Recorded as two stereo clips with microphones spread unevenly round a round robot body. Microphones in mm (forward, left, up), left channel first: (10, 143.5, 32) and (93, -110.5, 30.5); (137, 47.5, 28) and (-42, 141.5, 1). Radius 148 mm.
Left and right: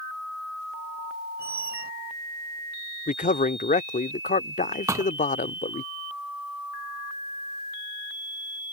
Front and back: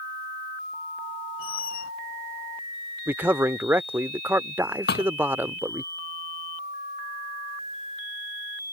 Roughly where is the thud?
Ahead.